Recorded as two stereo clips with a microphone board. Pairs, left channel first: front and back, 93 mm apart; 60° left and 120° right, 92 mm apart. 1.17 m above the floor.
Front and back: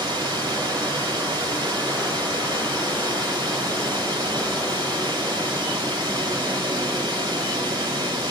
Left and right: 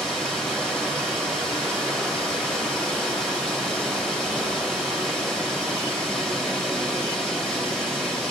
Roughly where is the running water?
Behind left.